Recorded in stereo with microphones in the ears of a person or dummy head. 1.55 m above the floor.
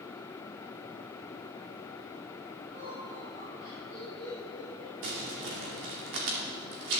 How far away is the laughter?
About 3 m.